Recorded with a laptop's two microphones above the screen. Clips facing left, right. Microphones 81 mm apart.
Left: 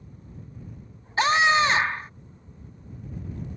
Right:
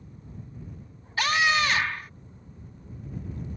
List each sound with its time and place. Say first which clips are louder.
1.2 s a scream: left 4 dB; 30° left (ahead or behind)